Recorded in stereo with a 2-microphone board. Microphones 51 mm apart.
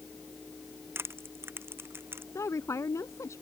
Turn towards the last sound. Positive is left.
turn(degrees=80)